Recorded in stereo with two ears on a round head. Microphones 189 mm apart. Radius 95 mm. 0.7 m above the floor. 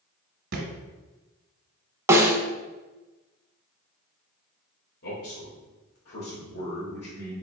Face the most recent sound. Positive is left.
turn(degrees=50)  # may be behind; listen again after turning